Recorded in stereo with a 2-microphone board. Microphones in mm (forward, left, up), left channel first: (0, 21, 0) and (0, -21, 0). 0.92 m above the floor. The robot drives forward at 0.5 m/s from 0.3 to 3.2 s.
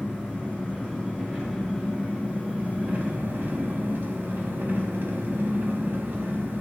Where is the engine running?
15° right (ahead or behind), 1.7 m; by 6.6 s 50° right (ahead or behind), 0.5 m.